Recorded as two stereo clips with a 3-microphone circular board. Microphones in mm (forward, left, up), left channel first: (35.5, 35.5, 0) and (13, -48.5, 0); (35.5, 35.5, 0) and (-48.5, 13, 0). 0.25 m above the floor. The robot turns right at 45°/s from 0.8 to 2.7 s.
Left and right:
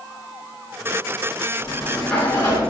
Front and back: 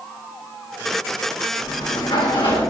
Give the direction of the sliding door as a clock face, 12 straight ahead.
1 o'clock.